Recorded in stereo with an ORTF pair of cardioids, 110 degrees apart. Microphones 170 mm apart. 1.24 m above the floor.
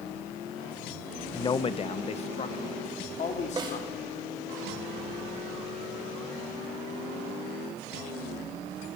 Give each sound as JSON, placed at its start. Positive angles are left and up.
{"t": 1.3, "sound": "a man speaking", "azimuth_deg": 20, "distance_m": 0.6}
{"t": 3.6, "sound": "a snare drum", "azimuth_deg": -25, "distance_m": 5.0}